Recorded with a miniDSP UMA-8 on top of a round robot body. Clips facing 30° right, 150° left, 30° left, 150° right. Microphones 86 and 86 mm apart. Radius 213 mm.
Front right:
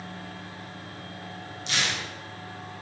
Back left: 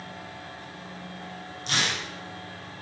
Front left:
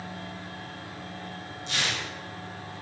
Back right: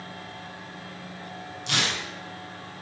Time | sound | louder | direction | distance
1.7 | tearing paper | back left 1 dB, back right 3 dB | 165° right | 4 m